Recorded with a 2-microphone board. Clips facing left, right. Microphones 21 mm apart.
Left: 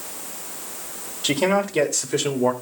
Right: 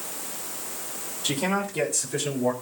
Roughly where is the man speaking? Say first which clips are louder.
Left 6 dB; left.